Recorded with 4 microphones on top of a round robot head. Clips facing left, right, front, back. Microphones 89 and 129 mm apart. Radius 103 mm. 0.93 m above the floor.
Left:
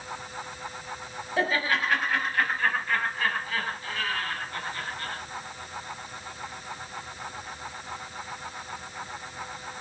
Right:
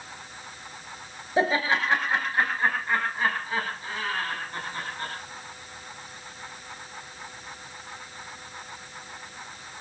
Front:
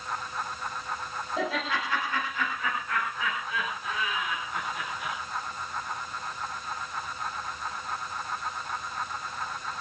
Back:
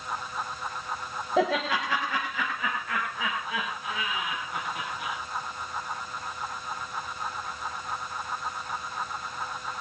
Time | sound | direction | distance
1.4 | laughter | 160° right | 5.5 m